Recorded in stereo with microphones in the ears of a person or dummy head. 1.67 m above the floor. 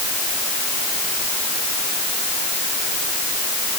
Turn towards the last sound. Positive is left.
No sound to turn to.